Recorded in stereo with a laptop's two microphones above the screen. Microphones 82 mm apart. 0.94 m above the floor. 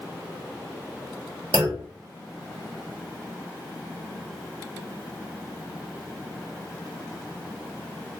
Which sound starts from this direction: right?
A clunk, at 1.5 s.